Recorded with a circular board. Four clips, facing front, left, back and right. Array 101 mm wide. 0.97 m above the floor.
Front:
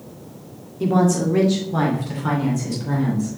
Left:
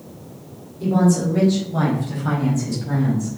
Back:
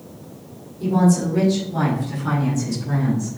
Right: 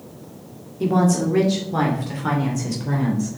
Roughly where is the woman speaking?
Ahead right.